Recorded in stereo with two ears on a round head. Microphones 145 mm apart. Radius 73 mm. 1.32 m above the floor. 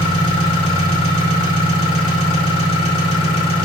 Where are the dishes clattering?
No dishes clattering in this recording.